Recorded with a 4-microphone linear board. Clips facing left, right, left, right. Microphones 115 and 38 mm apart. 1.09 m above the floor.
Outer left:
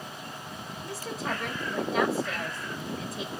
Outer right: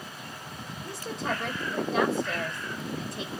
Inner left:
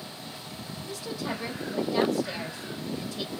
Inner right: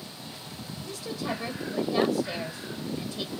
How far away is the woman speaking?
About 2.0 m.